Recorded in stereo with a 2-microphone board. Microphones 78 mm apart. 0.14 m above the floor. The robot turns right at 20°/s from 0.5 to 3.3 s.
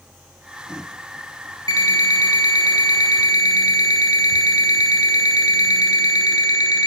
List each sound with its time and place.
1.7 s an alarm clock: 65° left, 1.0 m; by 6.9 s 100° left, 1.0 m